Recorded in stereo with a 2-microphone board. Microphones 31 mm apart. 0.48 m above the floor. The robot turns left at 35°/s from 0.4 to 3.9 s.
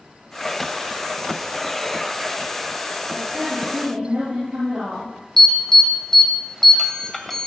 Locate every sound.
3.1 s a woman speaking: 60° right (ahead or behind), 8 m; by 5.1 s 35° right (ahead or behind), 8 m
5.4 s an alarm: 10° left (ahead or behind), 2.5 m